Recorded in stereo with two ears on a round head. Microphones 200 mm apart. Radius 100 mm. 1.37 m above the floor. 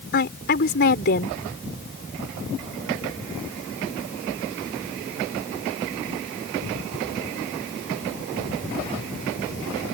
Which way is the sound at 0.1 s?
45° left (ahead or behind).